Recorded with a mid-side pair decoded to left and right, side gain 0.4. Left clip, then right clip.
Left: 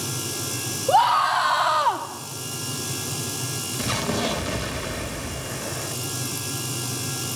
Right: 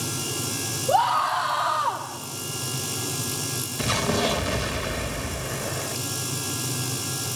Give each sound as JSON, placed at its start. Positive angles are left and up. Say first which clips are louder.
{"t": 0.9, "sound": "a scream", "louder": "left 3 dB", "azimuth_deg": 40, "distance_m": 3.5}
{"t": 3.8, "sound": "an explosion", "louder": "right 2 dB", "azimuth_deg": -10, "distance_m": 2.5}